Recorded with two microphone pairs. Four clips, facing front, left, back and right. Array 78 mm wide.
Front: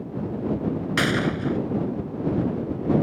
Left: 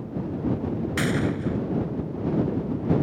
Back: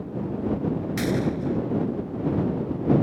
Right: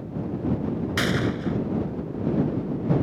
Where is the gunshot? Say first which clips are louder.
Even, front 3 dB; 20° right.